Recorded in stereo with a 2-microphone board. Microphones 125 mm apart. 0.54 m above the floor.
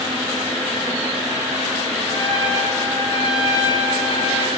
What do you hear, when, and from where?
2.1 s a trumpet: 35° left (ahead or behind), 3.5 m